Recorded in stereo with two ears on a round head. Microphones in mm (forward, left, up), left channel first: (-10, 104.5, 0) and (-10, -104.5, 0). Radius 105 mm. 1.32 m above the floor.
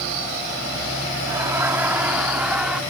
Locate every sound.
1.3 s laughter: 15° right (ahead or behind); by 2.8 s 5° right (ahead or behind)